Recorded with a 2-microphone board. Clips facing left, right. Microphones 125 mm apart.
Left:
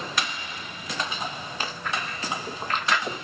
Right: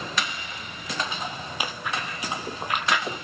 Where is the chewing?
10° right (ahead or behind), 0.7 m.